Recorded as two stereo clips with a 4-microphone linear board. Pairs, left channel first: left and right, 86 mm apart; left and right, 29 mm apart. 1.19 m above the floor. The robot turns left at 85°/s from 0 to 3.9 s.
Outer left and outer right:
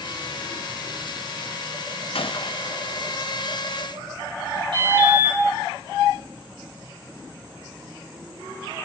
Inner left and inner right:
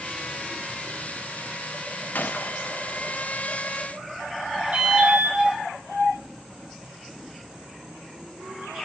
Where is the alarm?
60° right (ahead or behind), 5.5 m.